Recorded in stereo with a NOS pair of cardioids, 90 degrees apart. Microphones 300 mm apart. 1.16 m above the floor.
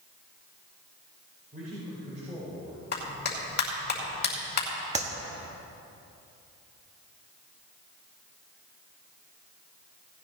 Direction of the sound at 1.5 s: 30° right.